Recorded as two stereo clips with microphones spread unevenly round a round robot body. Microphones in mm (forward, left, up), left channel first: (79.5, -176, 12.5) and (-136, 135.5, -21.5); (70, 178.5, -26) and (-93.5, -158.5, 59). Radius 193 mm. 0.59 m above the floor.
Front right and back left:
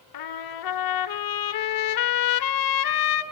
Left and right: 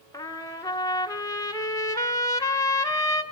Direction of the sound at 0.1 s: 15° right.